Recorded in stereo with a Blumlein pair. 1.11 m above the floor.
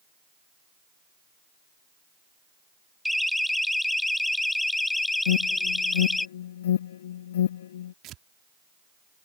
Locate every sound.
3.0 s a siren: straight ahead; by 6.3 s 10° left
5.3 s an alarm: 60° left
8.0 s tearing paper: 35° right